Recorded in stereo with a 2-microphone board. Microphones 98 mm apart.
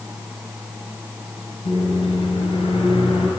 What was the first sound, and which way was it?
A microwave, 70° left (ahead or behind).